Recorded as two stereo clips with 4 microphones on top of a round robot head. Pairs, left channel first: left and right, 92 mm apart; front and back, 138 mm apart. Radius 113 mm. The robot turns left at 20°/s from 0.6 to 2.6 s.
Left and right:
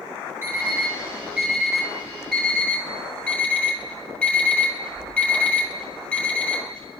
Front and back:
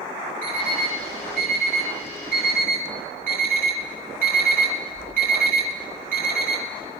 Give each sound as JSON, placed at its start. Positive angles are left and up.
{"t": 0.4, "sound": "an alarm clock", "azimuth_deg": -155, "distance_m": 8.5}